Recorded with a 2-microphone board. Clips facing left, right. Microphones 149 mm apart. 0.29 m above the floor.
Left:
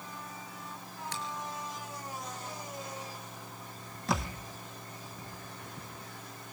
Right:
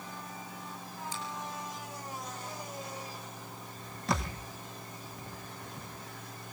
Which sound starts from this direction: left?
A finger snap, at 1.1 s.